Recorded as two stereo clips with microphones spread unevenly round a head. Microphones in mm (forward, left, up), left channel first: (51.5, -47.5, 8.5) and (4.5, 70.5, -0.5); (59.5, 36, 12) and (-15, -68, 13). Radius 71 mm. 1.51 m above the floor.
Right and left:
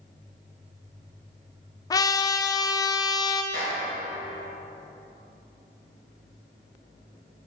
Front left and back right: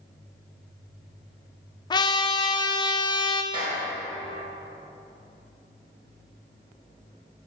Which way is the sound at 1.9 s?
5° right.